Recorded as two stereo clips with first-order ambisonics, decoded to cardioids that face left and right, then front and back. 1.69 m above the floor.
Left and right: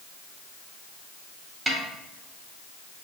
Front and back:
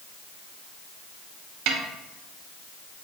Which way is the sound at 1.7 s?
170° right.